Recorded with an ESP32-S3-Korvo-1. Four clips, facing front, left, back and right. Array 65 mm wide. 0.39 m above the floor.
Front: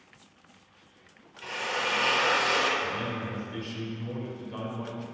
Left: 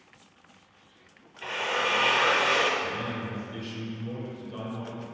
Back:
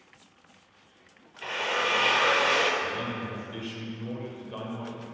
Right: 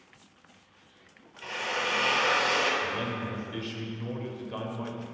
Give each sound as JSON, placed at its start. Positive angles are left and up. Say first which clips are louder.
{"t": 1.4, "sound": "a drill", "louder": "left 3 dB, back 3 dB", "azimuth_deg": 140, "distance_m": 0.6}
{"t": 2.8, "sound": "a man speaking", "louder": "even, even", "azimuth_deg": -105, "distance_m": 1.1}